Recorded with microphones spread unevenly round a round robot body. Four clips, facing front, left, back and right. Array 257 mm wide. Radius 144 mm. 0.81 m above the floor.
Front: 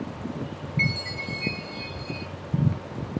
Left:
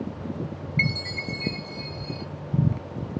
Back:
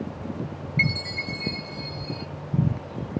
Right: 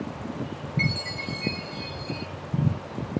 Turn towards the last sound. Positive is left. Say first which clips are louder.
# left 1 dB, back 2 dB
turn(degrees=135)